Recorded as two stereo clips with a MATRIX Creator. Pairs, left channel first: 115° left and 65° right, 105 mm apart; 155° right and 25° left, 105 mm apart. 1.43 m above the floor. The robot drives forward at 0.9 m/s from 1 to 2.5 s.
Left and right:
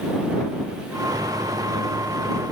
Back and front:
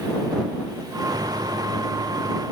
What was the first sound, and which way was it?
Only background noise.